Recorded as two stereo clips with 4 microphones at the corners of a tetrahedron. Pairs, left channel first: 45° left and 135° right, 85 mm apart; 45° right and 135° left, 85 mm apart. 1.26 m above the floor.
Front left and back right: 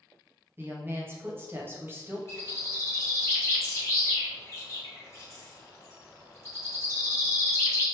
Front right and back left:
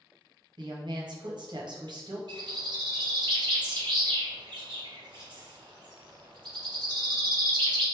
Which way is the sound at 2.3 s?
105° left.